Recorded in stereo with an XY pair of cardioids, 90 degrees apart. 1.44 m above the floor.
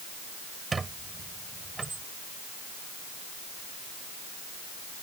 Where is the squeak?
35° right.